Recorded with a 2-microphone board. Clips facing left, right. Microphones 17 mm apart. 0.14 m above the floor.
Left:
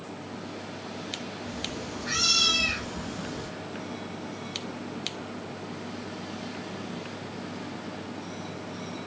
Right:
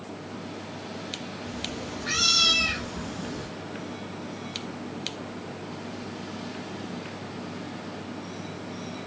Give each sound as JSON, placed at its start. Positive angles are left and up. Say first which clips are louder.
{"t": 1.4, "sound": "a cat meowing", "louder": "right 1 dB", "side_deg": -50, "distance_m": 1.4}